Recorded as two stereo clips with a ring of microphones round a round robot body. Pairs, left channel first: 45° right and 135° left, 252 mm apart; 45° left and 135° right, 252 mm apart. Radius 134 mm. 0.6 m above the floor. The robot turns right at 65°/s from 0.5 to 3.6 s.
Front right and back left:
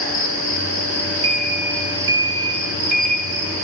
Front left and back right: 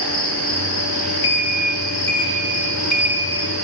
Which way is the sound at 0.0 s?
30° right.